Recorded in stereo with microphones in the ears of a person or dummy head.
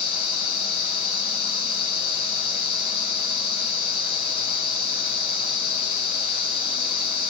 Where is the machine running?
30° left (ahead or behind), 3 m.